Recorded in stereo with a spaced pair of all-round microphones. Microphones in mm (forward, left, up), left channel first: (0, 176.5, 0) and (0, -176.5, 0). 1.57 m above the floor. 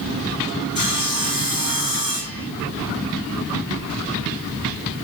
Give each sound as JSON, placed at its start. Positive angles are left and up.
{"t": 0.8, "sound": "sawing", "side_deg": -65, "distance_m": 3.5}